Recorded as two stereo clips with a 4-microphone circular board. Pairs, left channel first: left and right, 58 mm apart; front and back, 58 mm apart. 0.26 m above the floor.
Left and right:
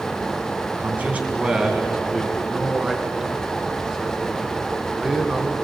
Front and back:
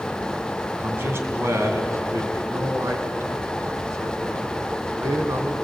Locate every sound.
0.8 s a man speaking: 135° right, 2.5 m; by 2.4 s straight behind, 3.5 m
2.5 s a man speaking: 165° right, 2.5 m